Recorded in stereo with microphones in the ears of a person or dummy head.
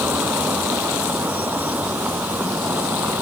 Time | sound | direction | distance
0.0 | a vehicle | 5° right (ahead or behind) | ?